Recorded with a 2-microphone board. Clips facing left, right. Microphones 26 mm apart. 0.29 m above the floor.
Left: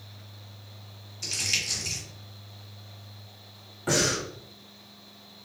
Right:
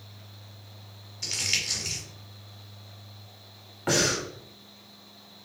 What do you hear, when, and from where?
1.2 s crumpling: 10° right (ahead or behind), 1.2 m
3.9 s breathing: 35° right (ahead or behind), 1.1 m